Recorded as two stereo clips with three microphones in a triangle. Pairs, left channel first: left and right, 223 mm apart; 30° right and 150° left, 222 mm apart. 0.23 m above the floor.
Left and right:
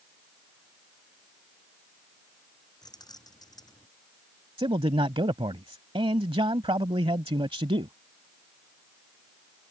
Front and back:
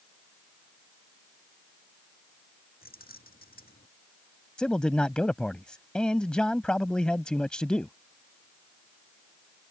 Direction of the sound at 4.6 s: 110° right.